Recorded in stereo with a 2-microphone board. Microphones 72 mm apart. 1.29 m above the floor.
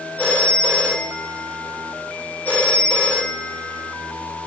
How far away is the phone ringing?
About 4 m.